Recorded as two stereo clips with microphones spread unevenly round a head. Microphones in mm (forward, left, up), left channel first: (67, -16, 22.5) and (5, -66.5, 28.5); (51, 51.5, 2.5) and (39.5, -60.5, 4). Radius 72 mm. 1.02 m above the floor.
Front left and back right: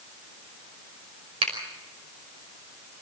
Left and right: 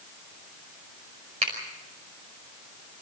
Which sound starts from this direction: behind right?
A finger snap, at 1.4 s.